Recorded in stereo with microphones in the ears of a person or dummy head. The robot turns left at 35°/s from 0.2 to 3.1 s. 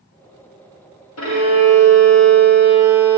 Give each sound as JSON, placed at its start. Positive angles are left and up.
{"t": 1.2, "sound": "a violin", "azimuth_deg": 75, "distance_m": 1.8}